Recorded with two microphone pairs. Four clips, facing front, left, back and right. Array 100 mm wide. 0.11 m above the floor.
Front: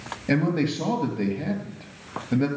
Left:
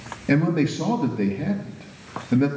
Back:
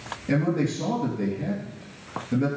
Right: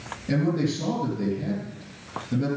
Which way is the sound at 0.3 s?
60° left.